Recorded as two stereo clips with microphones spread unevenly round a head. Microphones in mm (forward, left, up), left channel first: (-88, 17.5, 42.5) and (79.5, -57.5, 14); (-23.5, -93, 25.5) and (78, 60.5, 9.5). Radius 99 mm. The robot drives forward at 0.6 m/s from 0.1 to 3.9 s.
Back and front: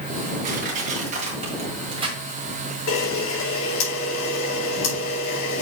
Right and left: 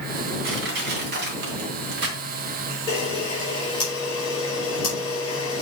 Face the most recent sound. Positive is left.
turn(degrees=170)